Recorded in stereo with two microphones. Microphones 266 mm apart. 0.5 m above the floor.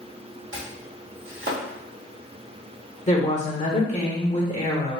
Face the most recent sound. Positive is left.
turn(degrees=25)  # may be behind; listen again after turning